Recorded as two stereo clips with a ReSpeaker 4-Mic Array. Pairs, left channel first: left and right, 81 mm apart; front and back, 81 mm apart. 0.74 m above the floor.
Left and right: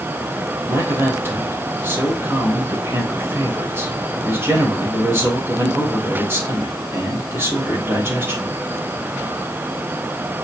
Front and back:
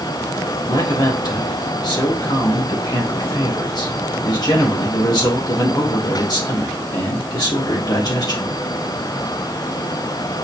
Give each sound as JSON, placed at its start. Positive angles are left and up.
{"t": 0.7, "sound": "a man speaking", "azimuth_deg": -30, "distance_m": 3.5}